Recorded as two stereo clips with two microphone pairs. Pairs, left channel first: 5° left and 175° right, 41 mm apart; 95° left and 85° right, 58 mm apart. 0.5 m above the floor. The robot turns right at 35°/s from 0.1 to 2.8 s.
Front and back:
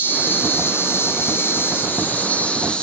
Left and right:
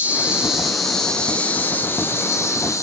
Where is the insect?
20° right, 1.6 m; by 2.8 s 70° left, 1.6 m.